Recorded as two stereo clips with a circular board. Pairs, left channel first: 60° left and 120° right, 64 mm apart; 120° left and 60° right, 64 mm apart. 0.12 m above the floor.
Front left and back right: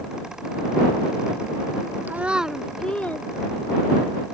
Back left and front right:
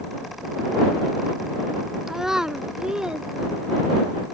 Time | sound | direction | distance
2.1 | a child speaking | 140° right | ?